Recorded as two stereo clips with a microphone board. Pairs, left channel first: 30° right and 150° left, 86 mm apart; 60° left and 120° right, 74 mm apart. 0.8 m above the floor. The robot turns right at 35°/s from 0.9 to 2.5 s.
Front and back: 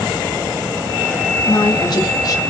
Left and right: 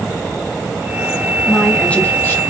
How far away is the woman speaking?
About 0.7 m.